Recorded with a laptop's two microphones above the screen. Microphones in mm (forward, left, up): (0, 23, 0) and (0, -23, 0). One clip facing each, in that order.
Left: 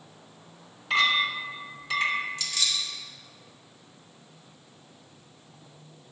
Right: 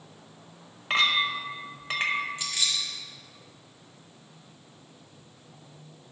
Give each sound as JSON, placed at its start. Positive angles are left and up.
{"t": 0.9, "sound": "a clink", "side_deg": -45, "distance_m": 1.3}
{"t": 2.4, "sound": "keys jangling", "side_deg": -20, "distance_m": 1.3}